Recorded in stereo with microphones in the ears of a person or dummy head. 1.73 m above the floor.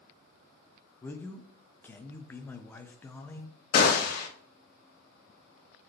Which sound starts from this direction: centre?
A man speaking, at 1.0 s.